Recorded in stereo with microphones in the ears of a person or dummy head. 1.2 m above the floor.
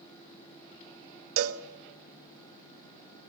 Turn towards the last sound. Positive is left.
turn(degrees=-85)